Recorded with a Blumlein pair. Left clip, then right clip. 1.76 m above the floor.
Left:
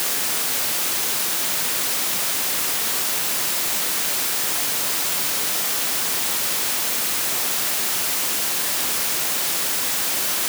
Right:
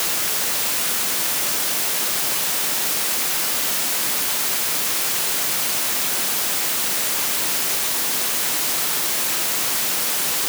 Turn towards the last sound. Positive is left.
No sound to turn to.